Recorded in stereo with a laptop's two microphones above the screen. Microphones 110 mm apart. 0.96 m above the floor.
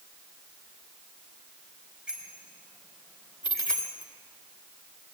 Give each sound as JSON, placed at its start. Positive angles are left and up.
{"t": 2.1, "sound": "a bicycle bell", "side_deg": -10, "distance_m": 4.0}
{"t": 3.4, "sound": "a dropped coin", "side_deg": 45, "distance_m": 1.4}